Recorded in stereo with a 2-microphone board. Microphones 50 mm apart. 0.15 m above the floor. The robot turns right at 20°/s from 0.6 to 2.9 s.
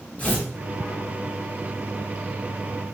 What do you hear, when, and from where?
0.2 s tearing paper: 25° left (ahead or behind), 1.1 m